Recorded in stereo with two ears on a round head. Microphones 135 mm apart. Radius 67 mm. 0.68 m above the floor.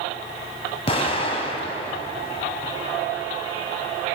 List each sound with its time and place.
0.9 s an explosion: 40° left (ahead or behind), 3.5 m